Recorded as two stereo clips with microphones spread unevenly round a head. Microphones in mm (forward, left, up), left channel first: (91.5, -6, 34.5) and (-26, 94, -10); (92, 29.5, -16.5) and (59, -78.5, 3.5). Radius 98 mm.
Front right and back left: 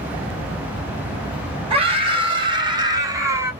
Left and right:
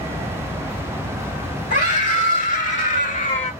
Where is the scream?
85° left, 2.5 m; by 3.5 s 60° left, 1.7 m.